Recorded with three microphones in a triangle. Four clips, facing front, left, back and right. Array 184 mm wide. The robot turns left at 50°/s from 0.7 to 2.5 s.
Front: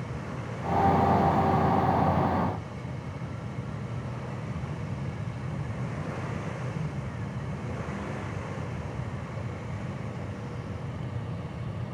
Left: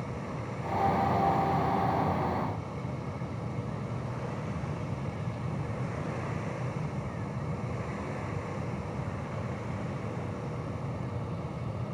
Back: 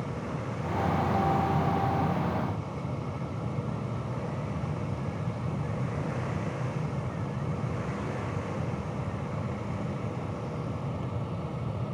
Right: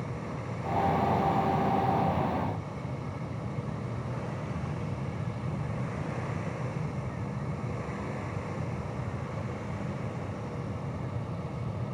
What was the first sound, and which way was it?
Only background noise.